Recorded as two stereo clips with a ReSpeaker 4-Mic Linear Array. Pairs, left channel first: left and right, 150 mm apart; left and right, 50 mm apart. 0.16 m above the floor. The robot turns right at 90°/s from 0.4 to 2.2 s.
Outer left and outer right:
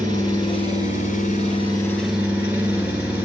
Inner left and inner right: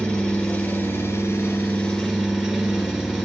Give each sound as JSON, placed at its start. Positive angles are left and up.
{"t": 0.0, "sound": "an engine running", "azimuth_deg": 30, "distance_m": 1.1}